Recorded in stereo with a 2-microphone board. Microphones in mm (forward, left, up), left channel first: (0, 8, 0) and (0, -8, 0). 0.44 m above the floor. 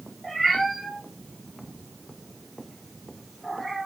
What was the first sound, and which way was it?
A cat meowing, 5° right (ahead or behind).